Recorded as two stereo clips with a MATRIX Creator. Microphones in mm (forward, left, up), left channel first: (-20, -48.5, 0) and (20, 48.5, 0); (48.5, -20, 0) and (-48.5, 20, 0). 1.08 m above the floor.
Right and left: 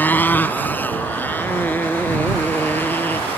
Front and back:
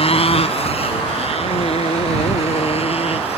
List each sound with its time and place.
0.0 s a motorcycle: 40° right